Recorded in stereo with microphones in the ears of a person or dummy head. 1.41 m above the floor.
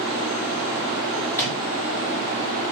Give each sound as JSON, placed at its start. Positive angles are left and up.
{"t": 1.3, "sound": "a microwave", "side_deg": 10, "distance_m": 3.5}